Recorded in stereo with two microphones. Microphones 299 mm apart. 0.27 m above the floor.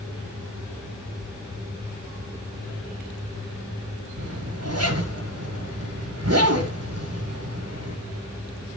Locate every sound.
4.2 s a zipper: 50° right (ahead or behind), 2 m